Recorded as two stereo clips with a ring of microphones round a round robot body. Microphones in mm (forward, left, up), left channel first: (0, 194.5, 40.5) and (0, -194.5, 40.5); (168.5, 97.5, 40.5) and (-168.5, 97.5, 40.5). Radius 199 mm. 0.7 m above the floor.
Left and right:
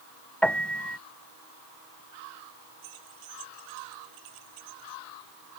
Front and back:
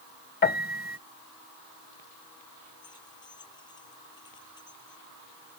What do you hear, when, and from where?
0.4 s a piano: 5° left
2.8 s keys jangling: 80° right